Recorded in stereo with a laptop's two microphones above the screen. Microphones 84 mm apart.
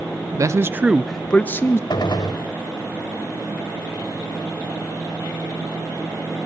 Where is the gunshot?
60° left (ahead or behind), 1.8 m.